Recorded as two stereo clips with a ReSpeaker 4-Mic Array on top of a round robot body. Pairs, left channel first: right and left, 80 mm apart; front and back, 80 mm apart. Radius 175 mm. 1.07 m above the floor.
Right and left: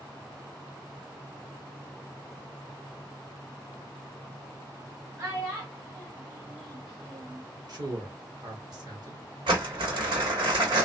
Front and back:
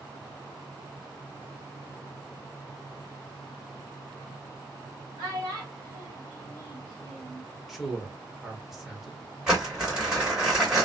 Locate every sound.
5.2 s a child speaking: 145° left, 1.3 m; by 7.4 s 70° left, 0.9 m
7.7 s a man speaking: 95° left, 1.1 m
9.5 s crumpling: 100° left, 1.6 m